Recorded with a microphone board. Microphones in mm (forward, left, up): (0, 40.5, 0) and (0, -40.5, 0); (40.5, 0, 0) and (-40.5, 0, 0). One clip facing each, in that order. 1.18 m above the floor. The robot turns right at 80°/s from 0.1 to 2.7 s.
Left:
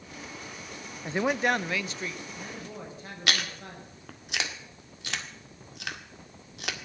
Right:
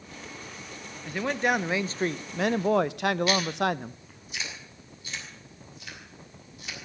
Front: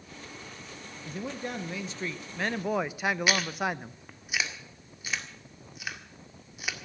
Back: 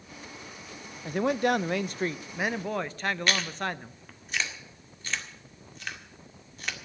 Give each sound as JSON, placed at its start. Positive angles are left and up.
{"t": 1.1, "sound": "a man speaking", "azimuth_deg": 145, "distance_m": 0.5}
{"t": 3.3, "sound": "chewing", "azimuth_deg": 80, "distance_m": 1.8}